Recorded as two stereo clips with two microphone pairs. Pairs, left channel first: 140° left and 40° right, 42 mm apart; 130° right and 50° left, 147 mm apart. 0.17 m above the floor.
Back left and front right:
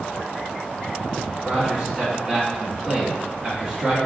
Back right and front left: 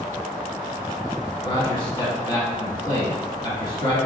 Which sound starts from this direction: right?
A man speaking, at 1.4 s.